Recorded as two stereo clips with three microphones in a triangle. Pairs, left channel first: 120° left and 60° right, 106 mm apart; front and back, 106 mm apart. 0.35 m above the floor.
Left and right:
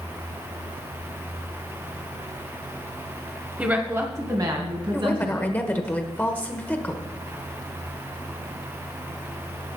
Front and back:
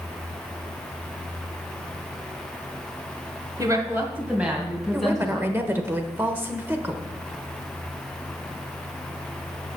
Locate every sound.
3.6 s a woman speaking: 135° right, 1.8 m; by 5.9 s 80° right, 3.5 m
4.9 s a woman speaking: 160° left, 1.0 m